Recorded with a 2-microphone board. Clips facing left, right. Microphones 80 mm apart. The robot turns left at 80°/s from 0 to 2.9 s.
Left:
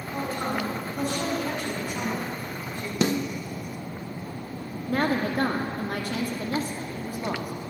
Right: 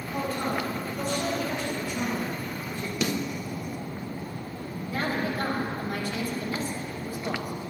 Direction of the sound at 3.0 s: 35° left (ahead or behind).